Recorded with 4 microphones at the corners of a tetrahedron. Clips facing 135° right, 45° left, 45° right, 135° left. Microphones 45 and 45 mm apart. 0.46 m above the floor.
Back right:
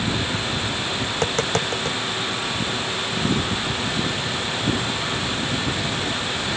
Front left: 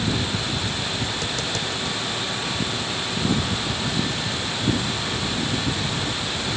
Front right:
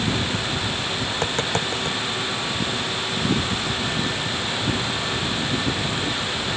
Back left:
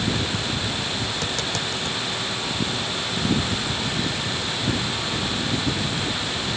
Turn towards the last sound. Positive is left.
turn(degrees=-100)